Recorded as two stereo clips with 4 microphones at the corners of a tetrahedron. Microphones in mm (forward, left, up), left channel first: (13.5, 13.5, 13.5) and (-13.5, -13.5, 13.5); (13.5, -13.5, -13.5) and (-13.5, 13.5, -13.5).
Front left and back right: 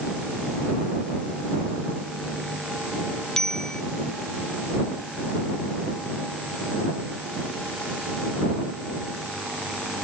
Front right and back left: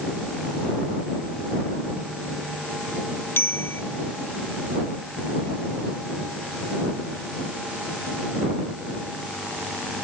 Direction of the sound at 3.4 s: 30° right.